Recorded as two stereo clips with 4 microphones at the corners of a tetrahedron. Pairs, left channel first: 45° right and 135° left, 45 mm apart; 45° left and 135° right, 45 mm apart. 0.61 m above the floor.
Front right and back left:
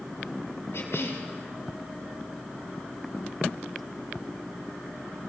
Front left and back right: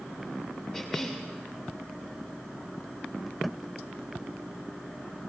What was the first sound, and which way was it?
A cough, 25° right.